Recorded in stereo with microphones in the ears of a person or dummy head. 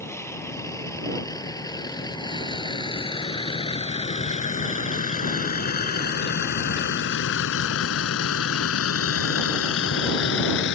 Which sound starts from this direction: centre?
A vehicle, at 0.0 s.